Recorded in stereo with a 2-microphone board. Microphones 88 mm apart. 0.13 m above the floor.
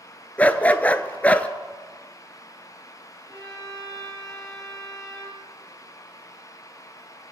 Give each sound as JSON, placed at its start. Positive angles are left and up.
{"t": 0.4, "sound": "a dog barking", "side_deg": 15, "distance_m": 0.5}
{"t": 3.3, "sound": "a violin", "side_deg": -55, "distance_m": 3.5}